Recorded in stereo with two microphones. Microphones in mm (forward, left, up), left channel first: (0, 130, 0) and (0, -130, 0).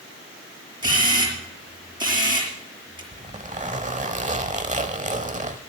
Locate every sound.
0.8 s a camera shutter: 15° right (ahead or behind), 5.5 m
3.1 s a zipper: 30° right (ahead or behind), 0.9 m